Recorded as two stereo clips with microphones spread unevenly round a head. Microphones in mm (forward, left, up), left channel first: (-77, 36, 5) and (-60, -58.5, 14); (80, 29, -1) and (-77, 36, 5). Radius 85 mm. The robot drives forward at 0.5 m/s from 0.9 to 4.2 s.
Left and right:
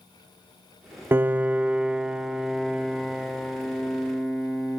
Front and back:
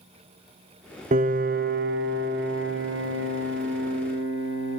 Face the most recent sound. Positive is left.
turn(degrees=-175)